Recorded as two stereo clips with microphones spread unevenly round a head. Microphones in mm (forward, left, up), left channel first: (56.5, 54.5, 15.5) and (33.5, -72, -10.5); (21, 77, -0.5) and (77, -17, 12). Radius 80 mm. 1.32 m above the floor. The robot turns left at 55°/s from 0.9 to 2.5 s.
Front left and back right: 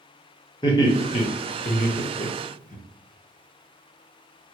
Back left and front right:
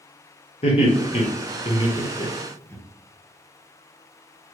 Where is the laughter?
150° left, 0.8 m; by 2.8 s 60° left, 0.8 m.